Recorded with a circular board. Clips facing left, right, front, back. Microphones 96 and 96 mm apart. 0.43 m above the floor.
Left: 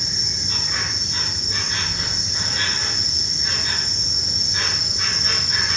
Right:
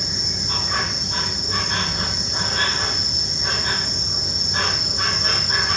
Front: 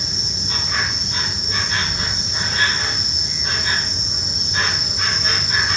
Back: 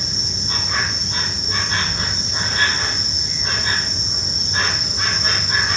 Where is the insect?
125° right, 3.5 m.